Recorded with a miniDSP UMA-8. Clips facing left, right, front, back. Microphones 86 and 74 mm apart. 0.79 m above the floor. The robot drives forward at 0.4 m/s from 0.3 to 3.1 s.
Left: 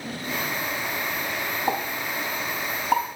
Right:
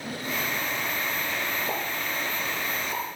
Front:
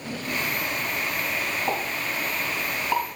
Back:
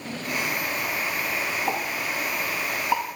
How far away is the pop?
About 4 m.